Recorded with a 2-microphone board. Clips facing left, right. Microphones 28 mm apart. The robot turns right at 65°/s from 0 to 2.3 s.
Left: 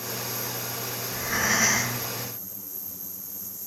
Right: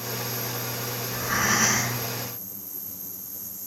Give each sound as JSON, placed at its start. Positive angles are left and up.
{"t": 1.0, "sound": "breathing", "azimuth_deg": -110, "distance_m": 4.0}